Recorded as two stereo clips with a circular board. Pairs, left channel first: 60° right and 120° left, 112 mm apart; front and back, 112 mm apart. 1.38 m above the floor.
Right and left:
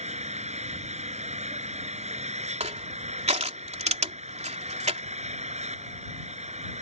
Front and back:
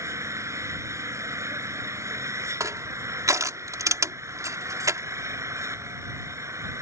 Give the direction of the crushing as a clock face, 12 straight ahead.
8 o'clock.